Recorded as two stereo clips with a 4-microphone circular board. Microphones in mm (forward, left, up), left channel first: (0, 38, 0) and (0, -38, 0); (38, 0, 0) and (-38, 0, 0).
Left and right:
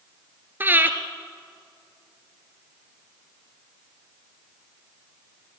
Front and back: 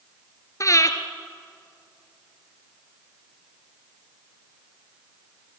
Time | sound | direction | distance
0.6 | breathing | 30° right | 1.5 m